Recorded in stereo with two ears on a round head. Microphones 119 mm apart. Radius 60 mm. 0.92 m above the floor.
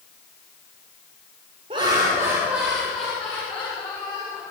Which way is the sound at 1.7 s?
40° right (ahead or behind).